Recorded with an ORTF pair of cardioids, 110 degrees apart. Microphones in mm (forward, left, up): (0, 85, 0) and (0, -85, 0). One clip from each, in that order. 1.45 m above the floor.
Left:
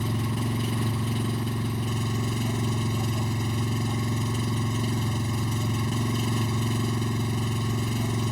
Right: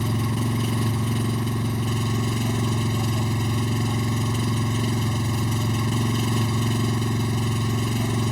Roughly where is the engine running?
Ahead.